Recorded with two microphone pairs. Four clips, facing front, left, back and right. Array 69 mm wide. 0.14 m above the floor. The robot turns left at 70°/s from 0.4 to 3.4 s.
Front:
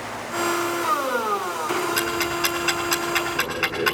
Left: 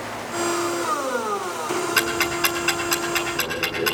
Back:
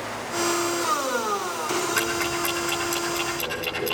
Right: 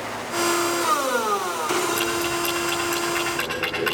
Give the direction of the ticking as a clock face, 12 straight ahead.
9 o'clock.